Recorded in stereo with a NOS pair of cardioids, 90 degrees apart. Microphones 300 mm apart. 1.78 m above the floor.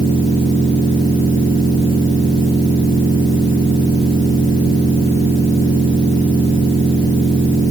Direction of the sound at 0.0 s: 15° right.